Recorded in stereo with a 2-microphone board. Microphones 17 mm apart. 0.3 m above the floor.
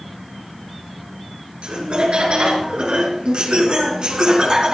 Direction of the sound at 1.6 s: 65° right (ahead or behind).